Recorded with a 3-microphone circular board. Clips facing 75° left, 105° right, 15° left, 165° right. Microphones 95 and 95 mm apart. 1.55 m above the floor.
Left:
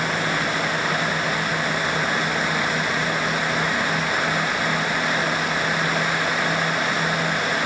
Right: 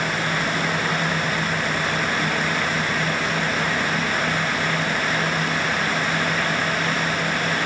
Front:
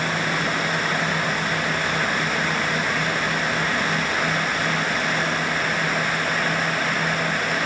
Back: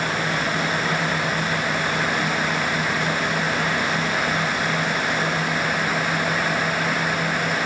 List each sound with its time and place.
Only background noise.